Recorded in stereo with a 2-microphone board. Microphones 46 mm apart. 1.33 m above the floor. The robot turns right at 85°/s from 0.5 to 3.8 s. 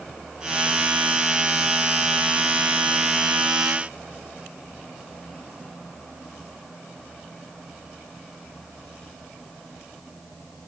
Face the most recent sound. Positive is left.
No sound to turn to.